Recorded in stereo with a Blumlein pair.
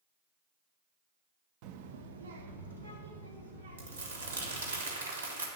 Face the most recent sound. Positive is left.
turn(degrees=-70)